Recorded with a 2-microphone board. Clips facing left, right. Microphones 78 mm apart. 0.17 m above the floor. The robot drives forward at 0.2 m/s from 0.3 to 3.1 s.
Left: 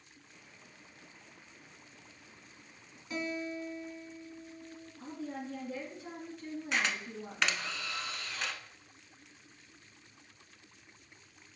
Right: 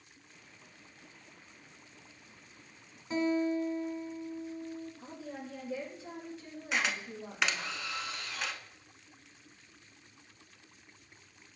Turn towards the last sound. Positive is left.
turn(degrees=-5)  # may be behind; listen again after turning